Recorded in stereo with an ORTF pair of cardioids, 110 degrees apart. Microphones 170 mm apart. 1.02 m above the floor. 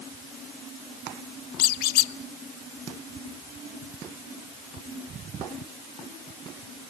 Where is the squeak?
70° left, 0.7 m.